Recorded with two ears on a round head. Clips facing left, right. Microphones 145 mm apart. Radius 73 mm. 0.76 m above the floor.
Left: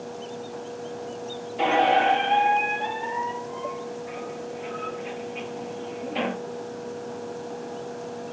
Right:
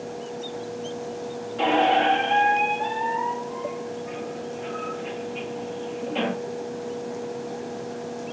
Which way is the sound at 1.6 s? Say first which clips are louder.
Even; 5° left (ahead or behind).